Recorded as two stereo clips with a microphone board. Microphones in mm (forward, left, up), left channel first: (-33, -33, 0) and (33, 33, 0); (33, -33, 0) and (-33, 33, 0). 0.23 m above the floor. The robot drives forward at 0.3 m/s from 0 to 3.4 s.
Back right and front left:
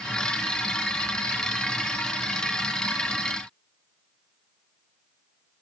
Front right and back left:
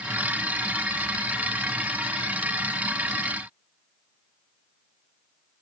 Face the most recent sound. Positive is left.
No sound to turn to.